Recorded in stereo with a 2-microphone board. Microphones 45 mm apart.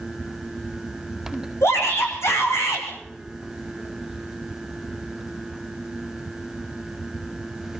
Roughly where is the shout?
Left.